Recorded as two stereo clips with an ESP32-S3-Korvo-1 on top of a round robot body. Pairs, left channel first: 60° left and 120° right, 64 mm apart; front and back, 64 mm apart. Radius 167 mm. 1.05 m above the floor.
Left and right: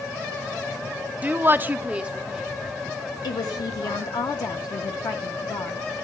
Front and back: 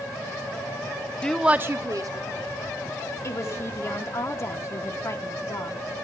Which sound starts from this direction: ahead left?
A woman speaking, at 3.2 s.